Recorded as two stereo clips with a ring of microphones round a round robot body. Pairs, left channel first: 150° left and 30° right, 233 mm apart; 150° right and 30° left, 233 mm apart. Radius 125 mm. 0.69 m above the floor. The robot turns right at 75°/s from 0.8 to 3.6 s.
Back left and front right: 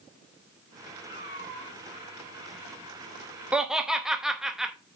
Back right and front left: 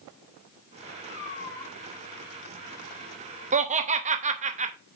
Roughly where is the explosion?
I don't hear an explosion.